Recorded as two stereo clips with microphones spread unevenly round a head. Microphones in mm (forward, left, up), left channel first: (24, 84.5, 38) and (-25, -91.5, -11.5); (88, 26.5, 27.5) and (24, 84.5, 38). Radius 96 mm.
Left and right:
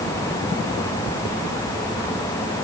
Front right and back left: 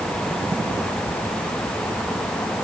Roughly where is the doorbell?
No doorbell in this recording.